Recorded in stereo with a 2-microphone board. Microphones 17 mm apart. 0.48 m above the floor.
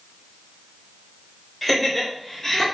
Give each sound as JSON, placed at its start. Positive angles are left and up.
{"t": 1.6, "sound": "laughter", "side_deg": 10, "distance_m": 1.9}